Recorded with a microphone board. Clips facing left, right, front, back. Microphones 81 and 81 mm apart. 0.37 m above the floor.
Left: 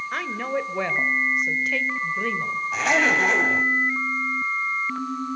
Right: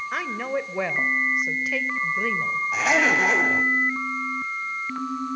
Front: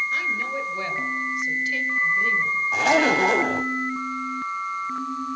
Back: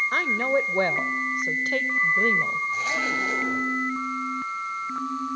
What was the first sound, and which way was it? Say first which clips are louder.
A woman speaking: even, back 4 dB; 175° right.